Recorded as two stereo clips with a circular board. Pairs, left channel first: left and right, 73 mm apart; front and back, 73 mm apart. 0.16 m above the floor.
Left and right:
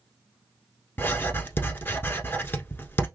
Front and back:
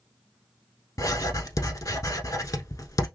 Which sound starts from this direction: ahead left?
Writing, at 1.0 s.